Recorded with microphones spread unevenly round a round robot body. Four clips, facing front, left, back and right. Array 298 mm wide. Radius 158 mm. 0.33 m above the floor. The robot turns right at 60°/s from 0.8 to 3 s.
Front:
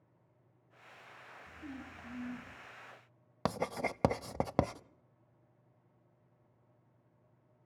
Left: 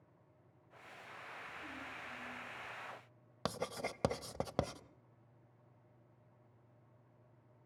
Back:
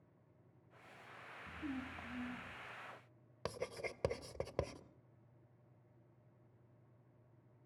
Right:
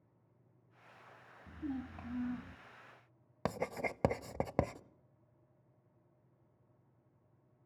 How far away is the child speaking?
About 1.9 m.